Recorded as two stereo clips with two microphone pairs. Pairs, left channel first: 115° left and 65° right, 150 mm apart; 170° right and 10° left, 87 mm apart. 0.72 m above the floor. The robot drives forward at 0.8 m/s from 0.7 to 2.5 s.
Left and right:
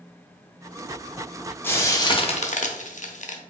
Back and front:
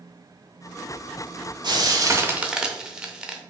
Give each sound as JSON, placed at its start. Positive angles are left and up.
{"t": 1.6, "sound": "frying", "azimuth_deg": 40, "distance_m": 0.9}